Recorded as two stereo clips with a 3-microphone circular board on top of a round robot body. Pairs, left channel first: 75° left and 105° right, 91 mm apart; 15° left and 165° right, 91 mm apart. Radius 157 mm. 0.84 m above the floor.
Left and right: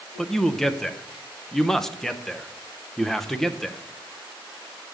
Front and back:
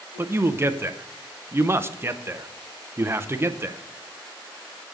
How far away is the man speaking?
About 0.7 m.